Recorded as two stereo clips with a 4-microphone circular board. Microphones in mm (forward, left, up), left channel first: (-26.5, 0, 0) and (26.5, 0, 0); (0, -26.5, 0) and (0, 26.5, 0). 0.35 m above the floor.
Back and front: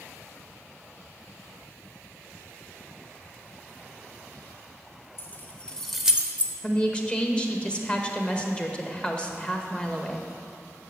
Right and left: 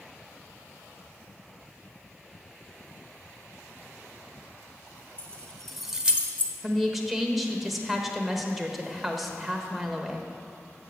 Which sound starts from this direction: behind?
A woman speaking, at 6.6 s.